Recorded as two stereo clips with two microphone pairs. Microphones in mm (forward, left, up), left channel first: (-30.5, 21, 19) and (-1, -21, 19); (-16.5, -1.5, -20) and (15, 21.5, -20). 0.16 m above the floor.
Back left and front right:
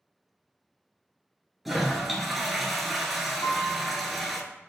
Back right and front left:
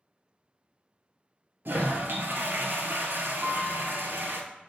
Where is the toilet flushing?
35° left, 0.6 m.